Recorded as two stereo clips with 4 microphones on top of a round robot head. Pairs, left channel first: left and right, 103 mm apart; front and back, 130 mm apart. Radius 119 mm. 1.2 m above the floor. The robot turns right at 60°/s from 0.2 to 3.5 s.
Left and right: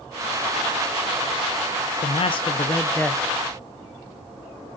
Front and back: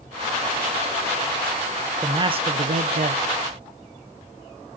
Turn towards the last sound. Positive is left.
turn(degrees=-160)